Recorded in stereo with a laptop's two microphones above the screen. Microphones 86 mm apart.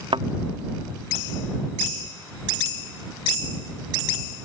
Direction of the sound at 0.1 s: 85° right.